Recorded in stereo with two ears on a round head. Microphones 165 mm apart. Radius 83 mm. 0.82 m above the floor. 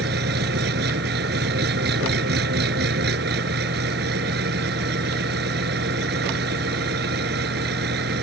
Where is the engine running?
60° right (ahead or behind).